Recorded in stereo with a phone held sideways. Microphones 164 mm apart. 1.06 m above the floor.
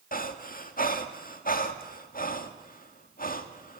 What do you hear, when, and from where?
0.1 s breathing: 60° left (ahead or behind), 1.7 m